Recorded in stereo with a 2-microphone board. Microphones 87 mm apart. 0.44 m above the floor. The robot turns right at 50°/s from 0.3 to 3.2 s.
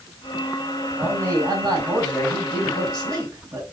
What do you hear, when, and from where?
1.0 s a man speaking: 160° right, 3 m; by 3.6 s 50° right, 3 m